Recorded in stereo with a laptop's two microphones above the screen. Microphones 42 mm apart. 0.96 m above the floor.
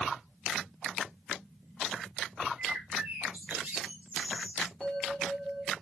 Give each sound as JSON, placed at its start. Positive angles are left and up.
{"t": 2.6, "sound": "a bird", "side_deg": -40, "distance_m": 1.0}
{"t": 4.8, "sound": "a bell", "side_deg": 10, "distance_m": 1.9}